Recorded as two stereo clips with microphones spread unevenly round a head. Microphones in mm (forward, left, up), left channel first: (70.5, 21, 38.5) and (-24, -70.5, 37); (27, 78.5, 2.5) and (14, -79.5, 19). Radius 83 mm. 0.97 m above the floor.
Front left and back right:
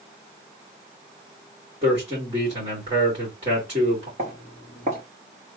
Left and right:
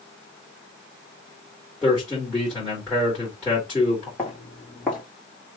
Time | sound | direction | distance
1.8 | a man speaking | 165° left | 2.5 m
4.2 | footsteps | 170° left | 2.5 m